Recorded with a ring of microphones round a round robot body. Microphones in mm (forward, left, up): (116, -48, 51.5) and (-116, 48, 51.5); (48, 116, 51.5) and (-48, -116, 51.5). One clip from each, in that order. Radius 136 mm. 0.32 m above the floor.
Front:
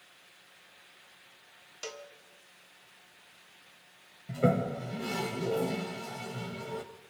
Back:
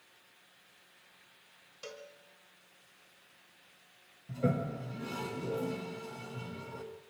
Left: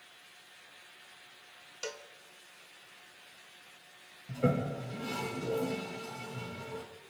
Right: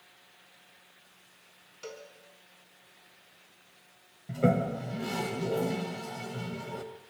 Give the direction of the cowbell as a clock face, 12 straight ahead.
11 o'clock.